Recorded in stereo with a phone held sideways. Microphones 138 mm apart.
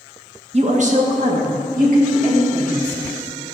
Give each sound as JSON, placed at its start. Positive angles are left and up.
{"t": 0.5, "sound": "a woman speaking", "side_deg": -50, "distance_m": 1.0}